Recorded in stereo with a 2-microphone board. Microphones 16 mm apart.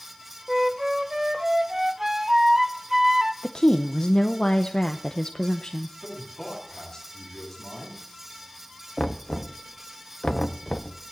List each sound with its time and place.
0.5 s a flute: 25° right (ahead or behind), 0.8 m
3.4 s a woman speaking: 55° left (ahead or behind), 0.7 m
6.0 s a man speaking: 10° left (ahead or behind), 8.5 m
9.0 s knocking: 25° left (ahead or behind), 0.7 m